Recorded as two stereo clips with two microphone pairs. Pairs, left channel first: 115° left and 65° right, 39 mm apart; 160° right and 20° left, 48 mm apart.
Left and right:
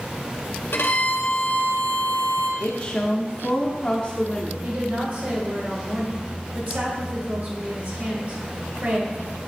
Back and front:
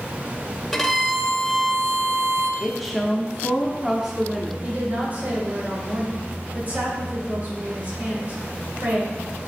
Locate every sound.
0.7 s a violin: 115° left, 0.8 m
2.6 s a woman speaking: 105° left, 0.7 m
4.6 s a woman speaking: 30° right, 2.5 m